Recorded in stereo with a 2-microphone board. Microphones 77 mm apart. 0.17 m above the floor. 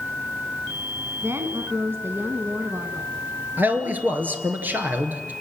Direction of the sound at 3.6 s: 25° right (ahead or behind).